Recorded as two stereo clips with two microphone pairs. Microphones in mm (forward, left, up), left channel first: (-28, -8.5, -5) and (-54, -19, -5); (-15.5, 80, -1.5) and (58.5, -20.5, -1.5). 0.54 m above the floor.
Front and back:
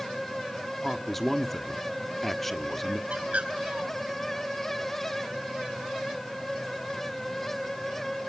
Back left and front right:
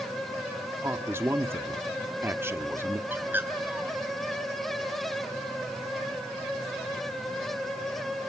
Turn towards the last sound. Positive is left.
turn(degrees=-125)